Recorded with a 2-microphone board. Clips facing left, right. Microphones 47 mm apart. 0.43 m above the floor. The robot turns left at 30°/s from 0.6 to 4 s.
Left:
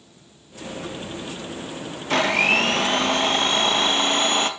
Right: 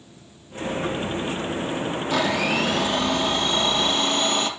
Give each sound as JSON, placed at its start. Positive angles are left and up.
{"t": 2.1, "sound": "a blender", "azimuth_deg": 95, "distance_m": 2.0}